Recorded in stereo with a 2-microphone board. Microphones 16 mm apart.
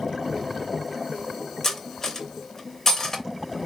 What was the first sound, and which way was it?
Cutlery clinking, 35° left (ahead or behind).